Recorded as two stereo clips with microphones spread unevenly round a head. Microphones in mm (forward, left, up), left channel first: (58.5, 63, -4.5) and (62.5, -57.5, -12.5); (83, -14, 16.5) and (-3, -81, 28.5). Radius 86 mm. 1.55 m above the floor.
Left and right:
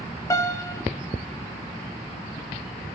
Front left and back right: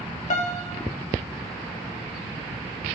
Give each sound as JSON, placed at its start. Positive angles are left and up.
{"t": 0.3, "sound": "a piano", "azimuth_deg": 35, "distance_m": 1.7}